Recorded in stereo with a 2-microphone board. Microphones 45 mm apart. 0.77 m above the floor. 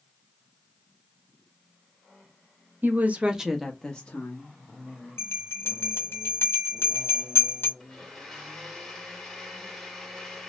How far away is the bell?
About 1.6 m.